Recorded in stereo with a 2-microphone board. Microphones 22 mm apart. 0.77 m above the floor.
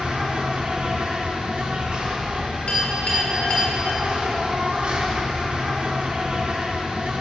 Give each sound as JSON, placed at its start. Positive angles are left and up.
{"t": 0.0, "sound": "an insect", "side_deg": -65, "distance_m": 2.0}
{"t": 2.7, "sound": "a clink", "side_deg": 85, "distance_m": 3.0}